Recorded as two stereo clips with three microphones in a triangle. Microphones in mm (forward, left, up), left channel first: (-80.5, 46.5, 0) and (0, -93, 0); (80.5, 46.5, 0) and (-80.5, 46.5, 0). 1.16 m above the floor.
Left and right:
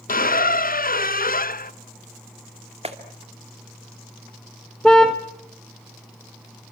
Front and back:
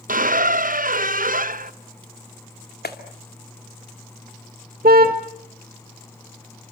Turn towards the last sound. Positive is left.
turn(degrees=-155)